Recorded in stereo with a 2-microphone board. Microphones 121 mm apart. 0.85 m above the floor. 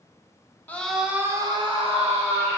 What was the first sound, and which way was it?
A scream, 15° left (ahead or behind).